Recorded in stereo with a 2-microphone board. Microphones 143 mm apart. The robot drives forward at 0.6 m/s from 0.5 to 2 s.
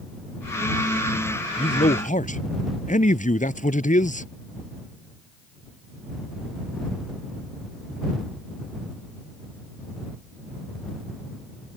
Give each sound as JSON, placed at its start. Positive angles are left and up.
{"t": 1.6, "sound": "a man speaking", "side_deg": 65}